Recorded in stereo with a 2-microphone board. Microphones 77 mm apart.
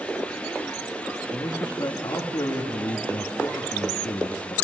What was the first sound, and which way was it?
A man speaking, 50° left (ahead or behind).